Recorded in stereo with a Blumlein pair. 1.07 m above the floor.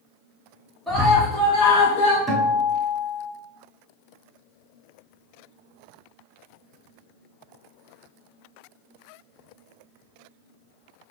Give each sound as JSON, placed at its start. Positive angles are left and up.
{"t": 0.9, "sound": "a scream", "azimuth_deg": 5, "distance_m": 1.5}
{"t": 2.3, "sound": "a guitar", "azimuth_deg": -15, "distance_m": 1.8}